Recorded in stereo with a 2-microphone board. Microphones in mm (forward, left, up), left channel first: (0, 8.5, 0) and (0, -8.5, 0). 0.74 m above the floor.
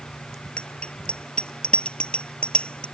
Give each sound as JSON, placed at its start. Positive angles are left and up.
{"t": 0.6, "sound": "a bicycle bell", "side_deg": 80}